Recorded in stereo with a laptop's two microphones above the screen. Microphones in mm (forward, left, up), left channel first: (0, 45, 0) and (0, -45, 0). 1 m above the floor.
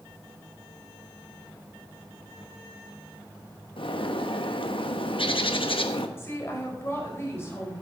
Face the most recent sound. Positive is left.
turn(degrees=30)  # may be behind; listen again after turning